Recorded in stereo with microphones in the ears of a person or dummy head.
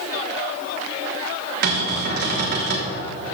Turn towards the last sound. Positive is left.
turn(degrees=-55)  # may be behind; listen again after turning